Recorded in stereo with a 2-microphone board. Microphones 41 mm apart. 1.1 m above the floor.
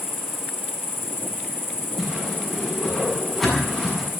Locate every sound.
0.0 s an insect: 70° left (ahead or behind), 4 m
2.0 s a whoosh: 10° left (ahead or behind), 7.5 m